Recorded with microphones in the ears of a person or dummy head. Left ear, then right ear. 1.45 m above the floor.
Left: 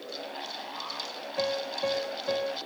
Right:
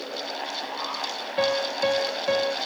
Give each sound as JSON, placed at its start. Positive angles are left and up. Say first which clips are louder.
{"t": 1.4, "sound": "a piano", "louder": "right 6 dB", "side_deg": -35}